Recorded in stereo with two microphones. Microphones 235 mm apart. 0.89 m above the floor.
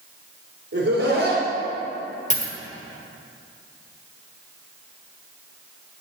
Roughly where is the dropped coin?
Left.